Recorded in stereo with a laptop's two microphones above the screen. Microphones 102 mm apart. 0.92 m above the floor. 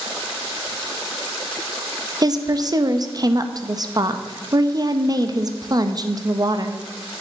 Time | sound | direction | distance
2.2 | a woman speaking | 40° right (ahead or behind) | 0.8 m